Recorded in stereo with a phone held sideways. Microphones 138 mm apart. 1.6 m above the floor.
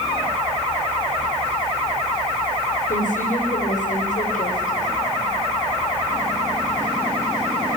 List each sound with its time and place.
2.9 s a woman speaking: 85° left, 5.5 m; by 4.9 s 90° left, 6.5 m